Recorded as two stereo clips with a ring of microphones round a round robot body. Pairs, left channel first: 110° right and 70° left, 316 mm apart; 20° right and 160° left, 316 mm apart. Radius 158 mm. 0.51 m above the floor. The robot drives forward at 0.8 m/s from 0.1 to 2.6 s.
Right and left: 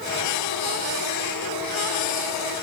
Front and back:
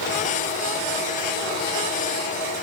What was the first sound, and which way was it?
Only background noise.